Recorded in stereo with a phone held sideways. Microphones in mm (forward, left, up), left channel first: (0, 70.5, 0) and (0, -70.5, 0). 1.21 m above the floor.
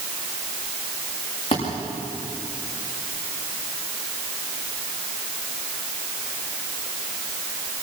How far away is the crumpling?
No crumpling in this recording.